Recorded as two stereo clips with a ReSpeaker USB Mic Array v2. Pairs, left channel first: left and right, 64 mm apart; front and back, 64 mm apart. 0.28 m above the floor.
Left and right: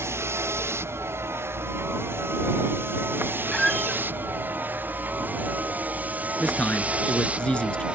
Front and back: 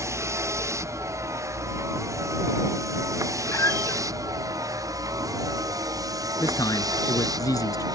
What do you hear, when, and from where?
0.0 s a vehicle: 135° right; by 8.0 s 160° right
3.5 s a squeak: 10° left
6.4 s a man speaking: 20° left